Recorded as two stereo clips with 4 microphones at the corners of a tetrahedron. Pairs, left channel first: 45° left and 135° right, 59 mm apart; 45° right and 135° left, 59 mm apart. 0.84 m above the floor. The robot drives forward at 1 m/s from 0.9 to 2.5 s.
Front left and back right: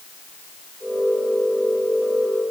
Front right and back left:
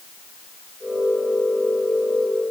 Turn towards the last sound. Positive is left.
No sound to turn to.